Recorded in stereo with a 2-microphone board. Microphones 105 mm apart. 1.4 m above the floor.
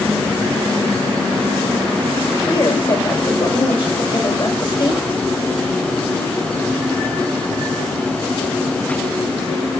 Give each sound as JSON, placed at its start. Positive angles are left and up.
{"t": 2.5, "sound": "a woman speaking", "side_deg": 50, "distance_m": 5.5}